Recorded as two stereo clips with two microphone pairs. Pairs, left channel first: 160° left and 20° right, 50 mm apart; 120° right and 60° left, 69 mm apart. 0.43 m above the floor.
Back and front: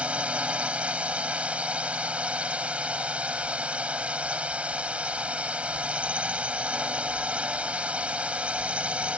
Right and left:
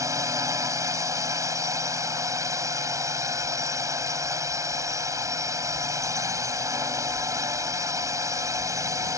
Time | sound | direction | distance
0.0 | a drone | 40° left | ?